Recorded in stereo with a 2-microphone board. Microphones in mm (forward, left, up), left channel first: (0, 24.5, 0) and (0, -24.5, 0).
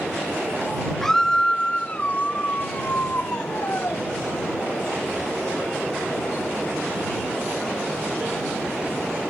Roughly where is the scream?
Centre.